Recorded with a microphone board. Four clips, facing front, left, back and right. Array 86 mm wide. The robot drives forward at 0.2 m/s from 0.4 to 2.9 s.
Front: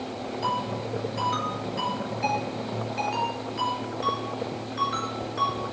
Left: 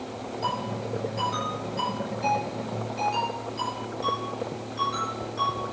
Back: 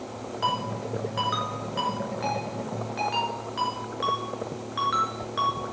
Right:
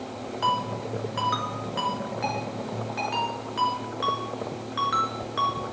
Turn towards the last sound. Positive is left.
turn(degrees=-130)